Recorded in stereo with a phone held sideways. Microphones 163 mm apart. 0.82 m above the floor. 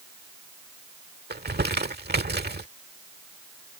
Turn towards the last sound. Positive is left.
turn(degrees=-85)